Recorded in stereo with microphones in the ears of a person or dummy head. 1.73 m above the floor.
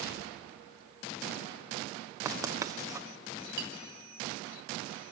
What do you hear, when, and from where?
2.2 s writing: 10° right (ahead or behind), 0.9 m
3.6 s a clink: 70° right (ahead or behind), 3.5 m